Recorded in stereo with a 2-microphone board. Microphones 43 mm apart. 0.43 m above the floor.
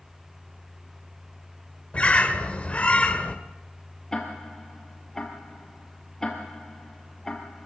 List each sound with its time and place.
1.9 s a bird: 30° left (ahead or behind), 1.6 m
4.1 s ticking: 10° left (ahead or behind), 3 m